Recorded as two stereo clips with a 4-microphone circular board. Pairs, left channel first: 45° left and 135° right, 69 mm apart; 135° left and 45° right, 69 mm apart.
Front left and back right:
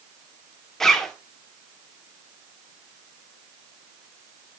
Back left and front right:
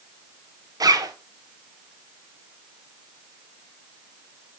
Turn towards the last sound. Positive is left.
turn(degrees=-40)